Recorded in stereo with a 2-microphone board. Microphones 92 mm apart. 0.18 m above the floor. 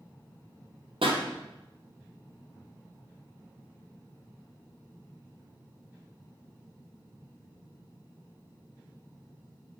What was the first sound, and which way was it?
A pop, 75° right (ahead or behind).